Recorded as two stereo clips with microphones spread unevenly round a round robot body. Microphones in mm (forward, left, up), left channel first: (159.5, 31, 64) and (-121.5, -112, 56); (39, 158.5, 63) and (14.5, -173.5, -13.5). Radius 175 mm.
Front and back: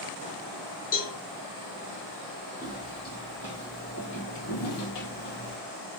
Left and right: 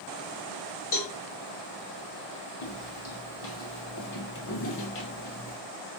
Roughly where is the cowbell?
Left.